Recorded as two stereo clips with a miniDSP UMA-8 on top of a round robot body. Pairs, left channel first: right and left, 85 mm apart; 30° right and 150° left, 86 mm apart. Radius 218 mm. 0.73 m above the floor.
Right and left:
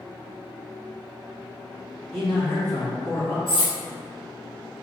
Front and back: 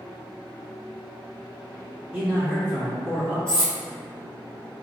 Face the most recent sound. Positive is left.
turn(degrees=-110)